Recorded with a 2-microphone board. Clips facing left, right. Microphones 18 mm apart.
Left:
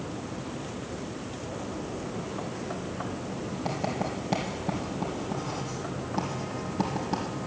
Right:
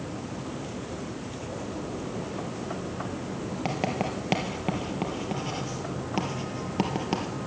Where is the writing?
80° right, 2.5 m.